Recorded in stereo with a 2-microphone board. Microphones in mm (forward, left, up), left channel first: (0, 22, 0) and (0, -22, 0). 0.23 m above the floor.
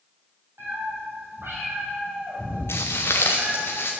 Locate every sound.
0.6 s a cat meowing: 55° right (ahead or behind), 5 m; by 3.7 s 65° right (ahead or behind), 2 m
2.7 s footsteps: 80° left, 1.1 m; by 3.9 s 60° left (ahead or behind), 2.0 m